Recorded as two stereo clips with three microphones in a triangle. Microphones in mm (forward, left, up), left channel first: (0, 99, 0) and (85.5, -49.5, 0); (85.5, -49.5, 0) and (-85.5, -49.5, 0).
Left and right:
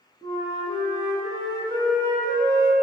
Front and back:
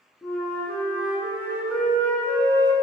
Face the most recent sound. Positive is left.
turn(degrees=75)